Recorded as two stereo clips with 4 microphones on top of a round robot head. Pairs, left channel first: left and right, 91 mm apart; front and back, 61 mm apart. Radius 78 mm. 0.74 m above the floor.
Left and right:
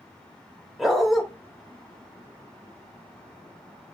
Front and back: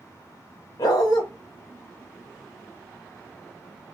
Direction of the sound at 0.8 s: Straight ahead.